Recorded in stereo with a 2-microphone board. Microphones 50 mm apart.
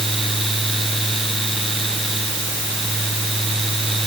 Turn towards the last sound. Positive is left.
No sound to turn to.